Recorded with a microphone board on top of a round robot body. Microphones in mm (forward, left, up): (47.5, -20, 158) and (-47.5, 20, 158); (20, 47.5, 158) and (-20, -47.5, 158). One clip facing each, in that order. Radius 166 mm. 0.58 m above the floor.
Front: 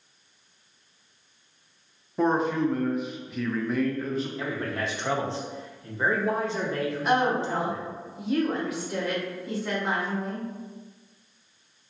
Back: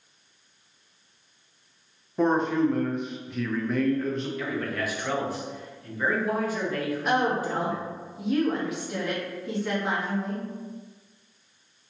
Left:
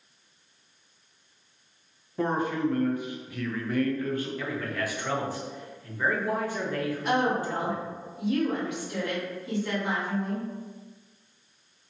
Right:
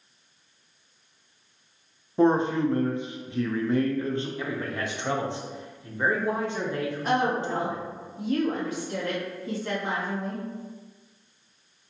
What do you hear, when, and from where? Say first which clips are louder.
2.2 s a man speaking: back 1 dB, right 6 dB; 110° right, 0.6 m
4.4 s a man speaking: back 1 dB, right 1 dB; 65° right, 0.7 m
7.0 s a woman speaking: front 1 dB, right 1 dB; 110° right, 1.4 m